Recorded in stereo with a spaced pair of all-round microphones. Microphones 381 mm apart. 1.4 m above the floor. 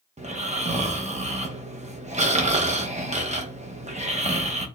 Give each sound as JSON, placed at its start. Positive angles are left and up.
{"t": 0.2, "sound": "snoring", "side_deg": -20, "distance_m": 0.8}